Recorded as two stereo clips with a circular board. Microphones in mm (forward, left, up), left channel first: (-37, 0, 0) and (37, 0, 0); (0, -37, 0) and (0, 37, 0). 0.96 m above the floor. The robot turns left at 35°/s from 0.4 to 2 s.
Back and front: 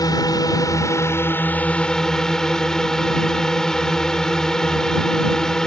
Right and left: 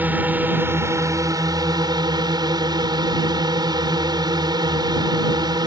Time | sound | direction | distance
0.0 | a drone | 155° left | ?